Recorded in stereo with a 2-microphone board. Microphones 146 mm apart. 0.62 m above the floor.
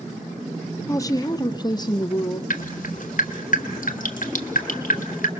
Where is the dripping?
70° left (ahead or behind), 1.5 m.